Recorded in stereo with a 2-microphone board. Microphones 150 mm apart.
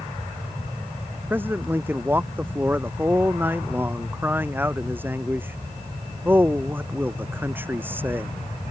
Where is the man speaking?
15° right (ahead or behind).